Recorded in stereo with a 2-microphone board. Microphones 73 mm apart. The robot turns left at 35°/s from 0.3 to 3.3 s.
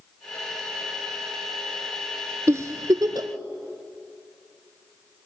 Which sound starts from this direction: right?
A giggle, at 2.5 s.